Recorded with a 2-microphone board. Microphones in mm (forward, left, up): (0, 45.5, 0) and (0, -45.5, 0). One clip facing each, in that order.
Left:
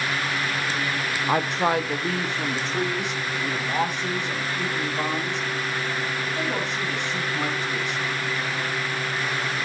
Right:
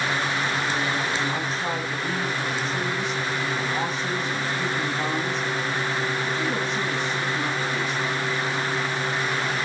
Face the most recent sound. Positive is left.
turn(degrees=65)  # may be behind; listen again after turning